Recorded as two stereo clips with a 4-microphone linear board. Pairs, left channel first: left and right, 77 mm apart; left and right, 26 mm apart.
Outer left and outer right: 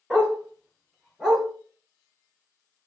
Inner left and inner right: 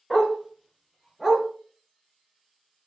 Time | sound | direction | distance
0.1 | a dog barking | 10° right (ahead or behind) | 1.6 m